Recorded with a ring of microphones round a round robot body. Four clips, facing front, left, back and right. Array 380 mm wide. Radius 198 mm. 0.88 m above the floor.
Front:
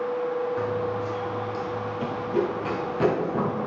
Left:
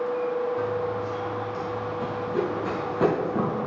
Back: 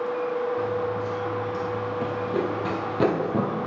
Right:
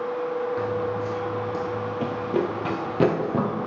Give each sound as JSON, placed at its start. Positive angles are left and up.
{"t": 0.6, "sound": "running footsteps", "azimuth_deg": -50, "distance_m": 0.9}